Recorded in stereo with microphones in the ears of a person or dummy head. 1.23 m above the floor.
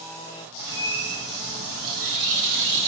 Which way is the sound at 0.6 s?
55° right (ahead or behind).